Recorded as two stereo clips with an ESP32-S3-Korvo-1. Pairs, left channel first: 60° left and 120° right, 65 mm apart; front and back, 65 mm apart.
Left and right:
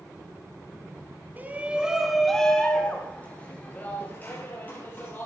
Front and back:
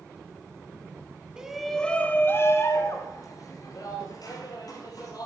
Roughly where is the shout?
Behind right.